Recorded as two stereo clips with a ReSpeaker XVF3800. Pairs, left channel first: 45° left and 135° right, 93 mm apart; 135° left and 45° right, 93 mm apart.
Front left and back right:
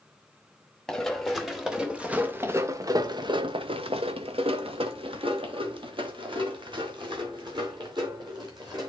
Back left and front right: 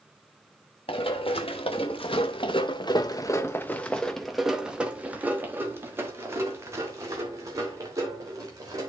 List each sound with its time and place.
0.9 s running footsteps: 130° left, 1.5 m; by 8.9 s 95° right, 3.5 m